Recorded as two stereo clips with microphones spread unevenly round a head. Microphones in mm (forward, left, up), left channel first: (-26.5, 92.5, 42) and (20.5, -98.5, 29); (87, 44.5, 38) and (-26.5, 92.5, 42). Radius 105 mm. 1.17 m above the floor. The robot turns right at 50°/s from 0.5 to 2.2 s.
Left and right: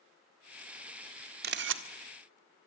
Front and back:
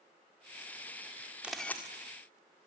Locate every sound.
1.4 s a camera shutter: 120° right, 1.6 m; by 1.8 s 100° right, 1.6 m